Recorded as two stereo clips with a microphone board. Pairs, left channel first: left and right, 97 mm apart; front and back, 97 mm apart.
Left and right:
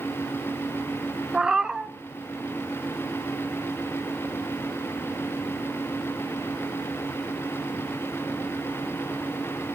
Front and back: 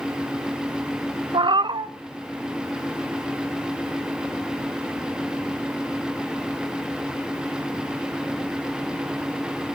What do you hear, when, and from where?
1.3 s a cat meowing: 170° right, 0.6 m